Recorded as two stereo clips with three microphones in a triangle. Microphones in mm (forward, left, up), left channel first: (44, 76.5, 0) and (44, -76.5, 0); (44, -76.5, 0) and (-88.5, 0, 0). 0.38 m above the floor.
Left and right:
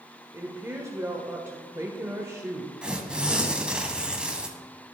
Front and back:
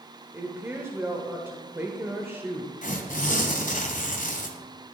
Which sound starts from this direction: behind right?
A woman speaking, at 0.3 s.